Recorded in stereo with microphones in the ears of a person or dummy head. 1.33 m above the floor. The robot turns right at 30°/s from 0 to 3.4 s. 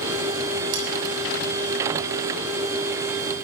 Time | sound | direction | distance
0.7 | cutlery clinking | 70° right (ahead or behind) | 5 m